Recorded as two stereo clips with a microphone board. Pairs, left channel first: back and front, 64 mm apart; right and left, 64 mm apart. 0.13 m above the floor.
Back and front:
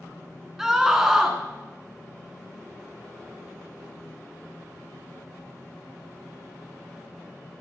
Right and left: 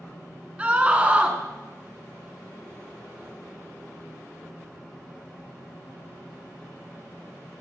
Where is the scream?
70° left, 1.4 m.